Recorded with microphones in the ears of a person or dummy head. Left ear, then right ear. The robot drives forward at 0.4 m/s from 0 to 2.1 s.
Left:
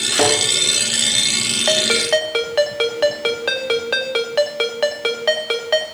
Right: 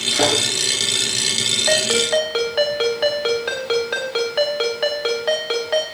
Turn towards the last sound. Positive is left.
turn(degrees=20)  # may be behind; listen again after turning